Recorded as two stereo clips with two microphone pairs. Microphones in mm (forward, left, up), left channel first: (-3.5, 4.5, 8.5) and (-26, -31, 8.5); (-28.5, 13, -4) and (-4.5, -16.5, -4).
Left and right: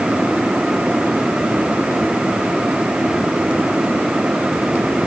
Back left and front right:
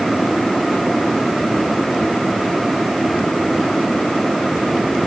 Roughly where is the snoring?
I don't hear snoring.